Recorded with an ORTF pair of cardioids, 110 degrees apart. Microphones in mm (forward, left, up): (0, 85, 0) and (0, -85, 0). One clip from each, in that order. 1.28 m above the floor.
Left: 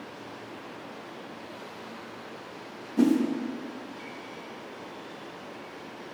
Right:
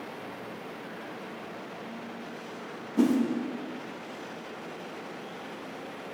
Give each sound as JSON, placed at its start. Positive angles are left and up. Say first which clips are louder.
{"t": 3.0, "sound": "a whoosh", "louder": "left 2 dB", "azimuth_deg": 0, "distance_m": 1.1}